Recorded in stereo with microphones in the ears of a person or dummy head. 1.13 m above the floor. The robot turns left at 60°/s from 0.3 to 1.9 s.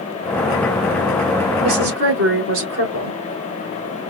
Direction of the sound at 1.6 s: 60° right (ahead or behind).